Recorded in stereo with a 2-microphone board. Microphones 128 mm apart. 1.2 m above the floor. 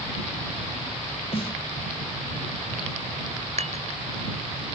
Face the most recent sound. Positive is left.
turn(degrees=-65)  # may be behind; listen again after turning